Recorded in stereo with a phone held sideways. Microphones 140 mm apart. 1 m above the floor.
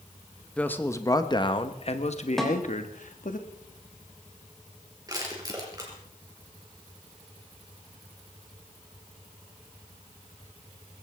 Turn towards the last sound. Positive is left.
turn(degrees=-25)  # may be behind; listen again after turning